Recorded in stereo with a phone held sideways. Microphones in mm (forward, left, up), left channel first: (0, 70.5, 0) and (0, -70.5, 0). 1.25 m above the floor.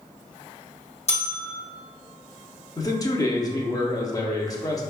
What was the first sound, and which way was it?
A bell, 50° left (ahead or behind).